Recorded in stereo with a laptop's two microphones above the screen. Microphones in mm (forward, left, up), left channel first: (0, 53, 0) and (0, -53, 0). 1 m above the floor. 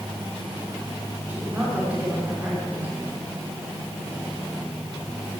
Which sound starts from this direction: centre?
A woman speaking, at 1.3 s.